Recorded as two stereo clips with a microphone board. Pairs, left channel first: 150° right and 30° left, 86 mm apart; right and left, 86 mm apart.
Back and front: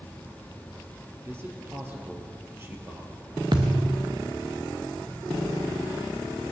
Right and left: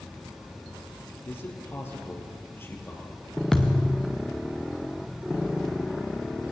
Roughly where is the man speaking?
Ahead right.